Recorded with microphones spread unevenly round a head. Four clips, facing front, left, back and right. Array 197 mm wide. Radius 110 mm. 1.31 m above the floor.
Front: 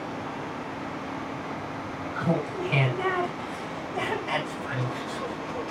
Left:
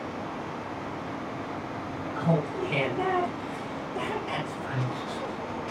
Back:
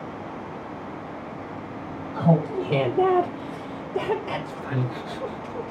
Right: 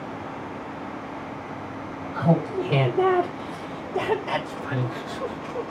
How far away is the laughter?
About 3.5 m.